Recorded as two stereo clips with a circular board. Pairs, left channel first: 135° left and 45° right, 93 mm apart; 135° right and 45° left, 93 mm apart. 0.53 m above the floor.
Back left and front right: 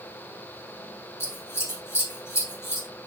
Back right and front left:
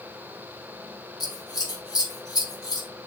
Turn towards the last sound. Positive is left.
turn(degrees=-170)